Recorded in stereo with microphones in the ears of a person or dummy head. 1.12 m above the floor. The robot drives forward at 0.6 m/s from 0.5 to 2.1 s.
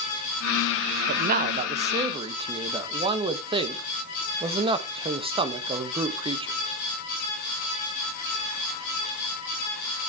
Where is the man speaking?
50° right (ahead or behind), 0.5 m; by 6.5 s 25° right (ahead or behind), 1.0 m.